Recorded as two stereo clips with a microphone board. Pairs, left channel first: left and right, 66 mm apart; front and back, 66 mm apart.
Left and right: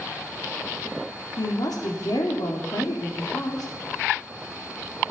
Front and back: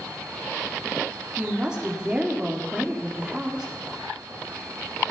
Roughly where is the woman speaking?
Left.